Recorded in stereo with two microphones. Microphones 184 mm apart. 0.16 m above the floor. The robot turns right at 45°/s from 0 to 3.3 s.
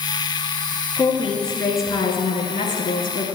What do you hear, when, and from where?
1.0 s a woman speaking: 15° right, 2.5 m; by 3.2 s 85° left, 2.5 m